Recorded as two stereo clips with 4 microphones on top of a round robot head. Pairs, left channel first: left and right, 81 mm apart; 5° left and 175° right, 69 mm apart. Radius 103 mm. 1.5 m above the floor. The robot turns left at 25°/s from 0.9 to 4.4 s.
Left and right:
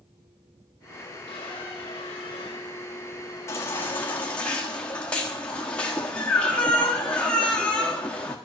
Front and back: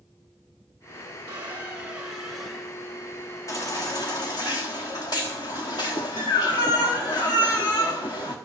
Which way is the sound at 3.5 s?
40° left.